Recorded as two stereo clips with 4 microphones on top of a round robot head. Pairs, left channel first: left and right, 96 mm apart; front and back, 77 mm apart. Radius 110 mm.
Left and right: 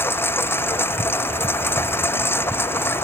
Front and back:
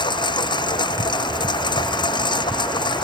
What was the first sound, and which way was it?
A lawn mower, 25° left.